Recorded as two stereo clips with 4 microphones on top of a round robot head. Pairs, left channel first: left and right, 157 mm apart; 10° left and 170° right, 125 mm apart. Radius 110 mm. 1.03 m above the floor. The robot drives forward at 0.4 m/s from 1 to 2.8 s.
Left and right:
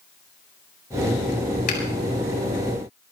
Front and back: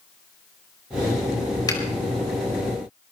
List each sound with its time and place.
1.7 s a finger snap: 65° left, 5 m